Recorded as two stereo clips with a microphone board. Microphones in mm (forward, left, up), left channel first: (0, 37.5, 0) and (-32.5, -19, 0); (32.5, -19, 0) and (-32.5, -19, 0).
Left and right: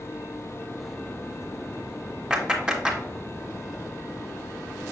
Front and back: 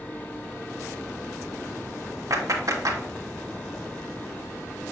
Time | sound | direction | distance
2.3 | a clap | 165° left | 1.8 m